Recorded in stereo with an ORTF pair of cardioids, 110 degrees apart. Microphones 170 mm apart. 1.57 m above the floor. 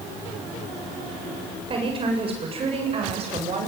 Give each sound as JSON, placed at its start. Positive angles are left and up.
{"t": 1.7, "sound": "a woman speaking", "azimuth_deg": -35, "distance_m": 8.0}